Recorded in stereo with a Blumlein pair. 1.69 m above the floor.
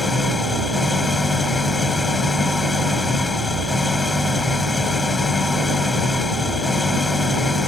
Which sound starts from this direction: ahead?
An engine running, at 0.0 s.